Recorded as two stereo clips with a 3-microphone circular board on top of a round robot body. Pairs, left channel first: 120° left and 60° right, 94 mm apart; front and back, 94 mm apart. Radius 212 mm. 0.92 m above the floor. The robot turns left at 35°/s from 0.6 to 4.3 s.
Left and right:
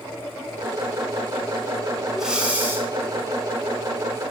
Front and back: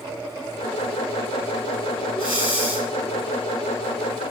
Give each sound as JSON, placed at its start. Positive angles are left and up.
{"t": 2.1, "sound": "breathing", "azimuth_deg": 30, "distance_m": 9.5}